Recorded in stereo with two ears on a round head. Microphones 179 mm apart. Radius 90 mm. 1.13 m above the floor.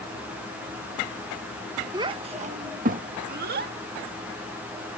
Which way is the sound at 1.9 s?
15° right (ahead or behind).